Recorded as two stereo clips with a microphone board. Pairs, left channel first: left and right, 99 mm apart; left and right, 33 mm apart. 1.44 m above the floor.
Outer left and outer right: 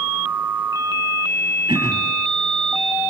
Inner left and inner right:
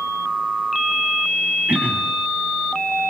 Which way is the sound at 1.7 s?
50° right (ahead or behind).